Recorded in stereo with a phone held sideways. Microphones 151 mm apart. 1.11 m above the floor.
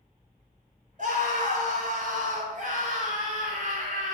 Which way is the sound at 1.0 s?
60° right (ahead or behind).